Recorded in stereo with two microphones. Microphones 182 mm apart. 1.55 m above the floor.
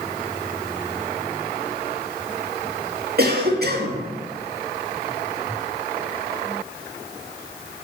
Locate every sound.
3.2 s a cough: 60° right (ahead or behind), 2 m